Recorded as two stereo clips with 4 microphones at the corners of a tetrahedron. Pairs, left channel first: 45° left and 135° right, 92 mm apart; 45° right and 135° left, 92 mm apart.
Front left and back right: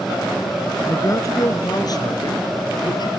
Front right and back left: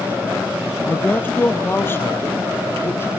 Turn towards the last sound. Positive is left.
turn(degrees=15)